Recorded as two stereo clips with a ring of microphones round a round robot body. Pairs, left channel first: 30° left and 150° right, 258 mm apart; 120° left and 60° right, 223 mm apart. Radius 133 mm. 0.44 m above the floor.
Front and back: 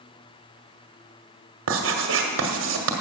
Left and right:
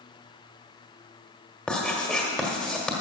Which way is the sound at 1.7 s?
155° right.